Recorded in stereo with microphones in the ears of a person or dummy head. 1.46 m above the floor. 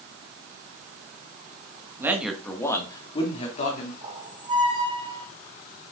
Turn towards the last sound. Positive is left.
turn(degrees=-30)  # may be behind; listen again after turning